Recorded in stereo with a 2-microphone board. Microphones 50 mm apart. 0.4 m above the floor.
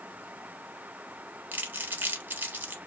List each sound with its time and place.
1.5 s crumpling: 45° right (ahead or behind), 0.6 m